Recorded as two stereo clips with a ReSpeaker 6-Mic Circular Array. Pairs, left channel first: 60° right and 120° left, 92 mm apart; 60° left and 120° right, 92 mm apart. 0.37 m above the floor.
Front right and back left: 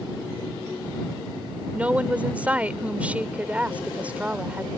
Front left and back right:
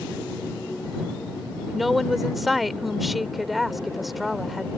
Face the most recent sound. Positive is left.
turn(degrees=155)